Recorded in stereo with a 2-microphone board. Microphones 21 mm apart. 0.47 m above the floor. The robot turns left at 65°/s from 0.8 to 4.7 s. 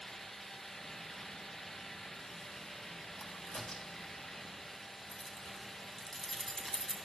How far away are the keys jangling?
About 3 m.